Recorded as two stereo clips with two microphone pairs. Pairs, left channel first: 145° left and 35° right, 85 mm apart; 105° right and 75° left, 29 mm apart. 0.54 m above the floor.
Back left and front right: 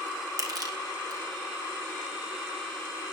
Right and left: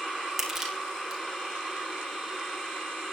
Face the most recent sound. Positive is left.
turn(degrees=0)